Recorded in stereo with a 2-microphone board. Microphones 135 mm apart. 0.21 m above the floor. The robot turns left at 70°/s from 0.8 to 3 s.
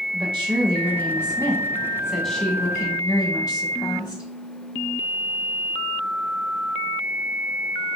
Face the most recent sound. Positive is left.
turn(degrees=125)